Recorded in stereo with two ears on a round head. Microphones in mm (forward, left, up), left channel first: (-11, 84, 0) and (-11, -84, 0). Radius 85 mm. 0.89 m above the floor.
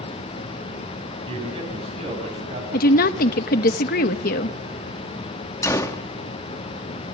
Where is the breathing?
I don't hear breathing.